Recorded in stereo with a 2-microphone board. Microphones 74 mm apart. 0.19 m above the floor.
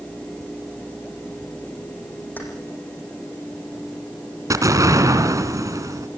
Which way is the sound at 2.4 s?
25° left (ahead or behind).